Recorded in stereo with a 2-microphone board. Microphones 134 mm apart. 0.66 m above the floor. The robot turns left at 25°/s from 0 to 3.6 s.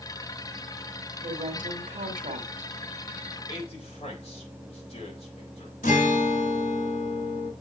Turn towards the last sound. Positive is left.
turn(degrees=75)  # may be behind; listen again after turning